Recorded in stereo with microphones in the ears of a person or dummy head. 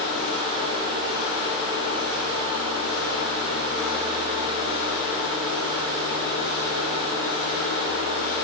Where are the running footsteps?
I don't hear running footsteps.